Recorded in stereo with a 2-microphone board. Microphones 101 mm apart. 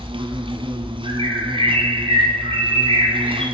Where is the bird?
65° right (ahead or behind), 4.5 m.